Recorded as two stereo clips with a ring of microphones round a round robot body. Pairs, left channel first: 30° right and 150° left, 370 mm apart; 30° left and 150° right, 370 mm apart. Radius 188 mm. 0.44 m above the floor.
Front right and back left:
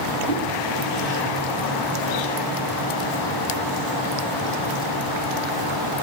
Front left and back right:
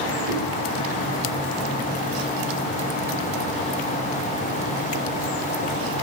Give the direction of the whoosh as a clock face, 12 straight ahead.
4 o'clock.